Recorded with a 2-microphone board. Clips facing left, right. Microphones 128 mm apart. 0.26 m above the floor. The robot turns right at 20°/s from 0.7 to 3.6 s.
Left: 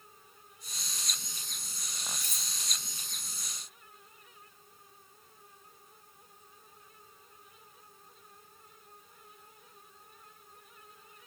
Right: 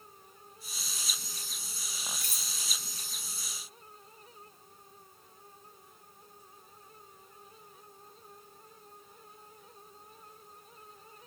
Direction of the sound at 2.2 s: 50° right (ahead or behind).